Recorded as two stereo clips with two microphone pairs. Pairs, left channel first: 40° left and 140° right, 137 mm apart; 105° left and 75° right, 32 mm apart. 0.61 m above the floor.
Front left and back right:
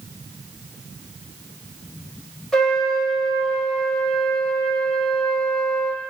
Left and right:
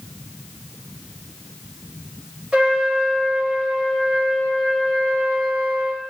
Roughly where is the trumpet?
Ahead right.